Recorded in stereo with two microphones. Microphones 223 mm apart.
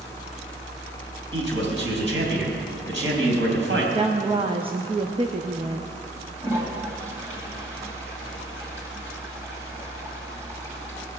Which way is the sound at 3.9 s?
25° right (ahead or behind).